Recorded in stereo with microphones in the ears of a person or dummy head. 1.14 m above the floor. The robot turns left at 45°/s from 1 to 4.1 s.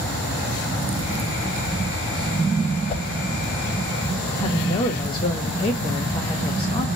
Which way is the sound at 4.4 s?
25° left (ahead or behind).